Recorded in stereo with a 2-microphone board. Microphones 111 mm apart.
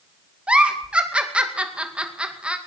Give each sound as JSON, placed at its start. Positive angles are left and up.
{"t": 0.5, "sound": "a giggle", "side_deg": -10, "distance_m": 2.5}